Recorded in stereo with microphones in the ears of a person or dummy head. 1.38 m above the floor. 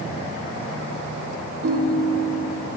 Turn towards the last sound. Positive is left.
turn(degrees=-65)  # may be behind; listen again after turning